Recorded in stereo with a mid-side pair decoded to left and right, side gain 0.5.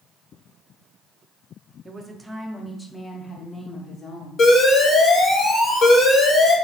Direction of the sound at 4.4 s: 55° left.